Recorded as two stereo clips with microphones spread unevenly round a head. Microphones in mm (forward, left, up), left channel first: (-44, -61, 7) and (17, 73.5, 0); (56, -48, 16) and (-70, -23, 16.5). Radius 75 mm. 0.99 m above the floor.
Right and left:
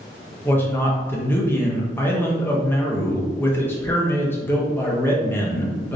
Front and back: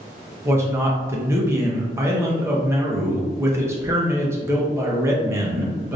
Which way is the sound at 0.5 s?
170° right.